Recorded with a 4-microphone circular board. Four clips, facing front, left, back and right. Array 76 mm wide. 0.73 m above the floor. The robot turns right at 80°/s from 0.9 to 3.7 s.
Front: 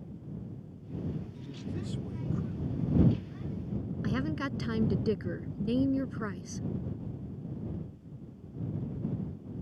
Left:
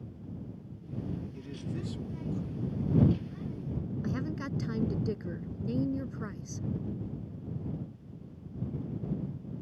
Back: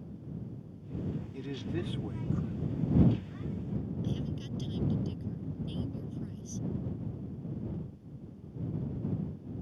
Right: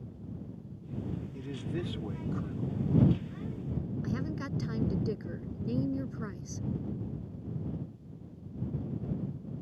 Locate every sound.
1.3 s a man speaking: 175° right; by 2.9 s 55° right
4.0 s a woman speaking: 5° left